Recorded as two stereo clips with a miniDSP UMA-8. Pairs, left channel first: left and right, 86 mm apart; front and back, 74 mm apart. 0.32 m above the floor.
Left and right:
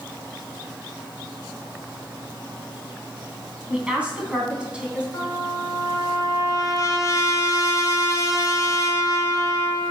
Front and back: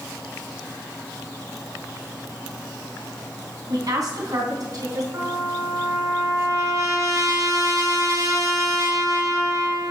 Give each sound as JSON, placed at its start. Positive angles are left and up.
{"t": 3.7, "sound": "a woman speaking", "azimuth_deg": -165, "distance_m": 3.0}
{"t": 5.1, "sound": "a trumpet", "azimuth_deg": 140, "distance_m": 3.0}